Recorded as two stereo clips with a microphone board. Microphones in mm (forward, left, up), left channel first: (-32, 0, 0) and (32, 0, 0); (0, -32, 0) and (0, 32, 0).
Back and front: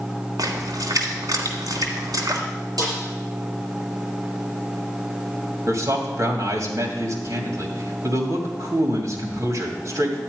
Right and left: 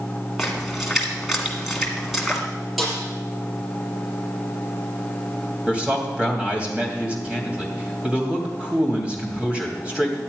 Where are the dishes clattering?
I don't hear dishes clattering.